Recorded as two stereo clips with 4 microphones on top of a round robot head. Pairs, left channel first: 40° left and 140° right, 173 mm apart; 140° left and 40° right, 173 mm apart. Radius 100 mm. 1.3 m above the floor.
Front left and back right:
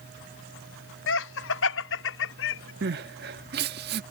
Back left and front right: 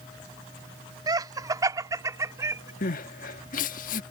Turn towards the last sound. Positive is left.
turn(degrees=-175)